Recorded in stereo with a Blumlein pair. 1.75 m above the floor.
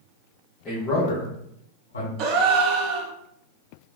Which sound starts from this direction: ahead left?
A man speaking, at 0.7 s.